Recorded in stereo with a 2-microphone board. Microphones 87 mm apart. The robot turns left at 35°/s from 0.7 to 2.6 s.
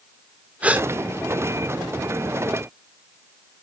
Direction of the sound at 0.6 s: 15° right (ahead or behind).